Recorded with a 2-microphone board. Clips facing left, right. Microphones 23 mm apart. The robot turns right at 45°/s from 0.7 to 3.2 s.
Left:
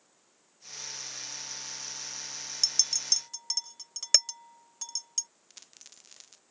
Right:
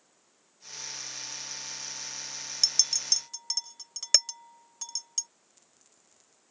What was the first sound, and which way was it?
A clink, 20° right (ahead or behind).